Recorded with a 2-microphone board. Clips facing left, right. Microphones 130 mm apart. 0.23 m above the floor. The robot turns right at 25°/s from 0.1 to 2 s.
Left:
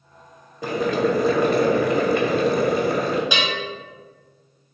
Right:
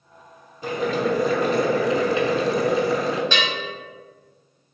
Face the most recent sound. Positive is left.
turn(degrees=10)  # may be behind; listen again after turning